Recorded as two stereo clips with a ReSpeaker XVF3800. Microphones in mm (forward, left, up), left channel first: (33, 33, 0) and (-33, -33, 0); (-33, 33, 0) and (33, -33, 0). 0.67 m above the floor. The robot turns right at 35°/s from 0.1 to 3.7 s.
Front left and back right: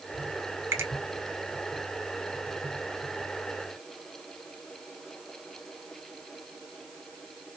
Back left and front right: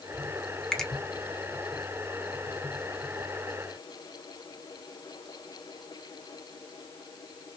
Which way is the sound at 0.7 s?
150° right.